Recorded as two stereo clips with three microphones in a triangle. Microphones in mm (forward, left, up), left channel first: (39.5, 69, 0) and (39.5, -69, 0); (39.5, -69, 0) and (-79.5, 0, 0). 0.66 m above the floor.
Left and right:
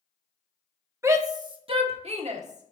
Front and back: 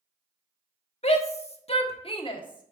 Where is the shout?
25° right, 1.0 m; by 2.7 s 85° right, 1.4 m.